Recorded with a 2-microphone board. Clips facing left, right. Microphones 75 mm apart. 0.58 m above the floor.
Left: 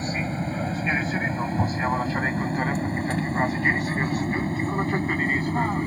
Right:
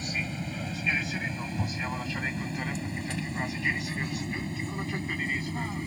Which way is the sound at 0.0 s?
40° left (ahead or behind).